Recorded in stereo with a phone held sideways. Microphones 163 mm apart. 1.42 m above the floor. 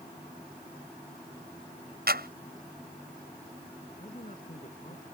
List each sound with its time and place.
2.1 s a clap: 75° right (ahead or behind)
4.0 s a man speaking: 50° left (ahead or behind)